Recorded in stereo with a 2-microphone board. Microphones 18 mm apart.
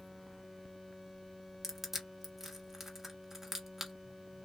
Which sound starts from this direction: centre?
Crushing, at 1.6 s.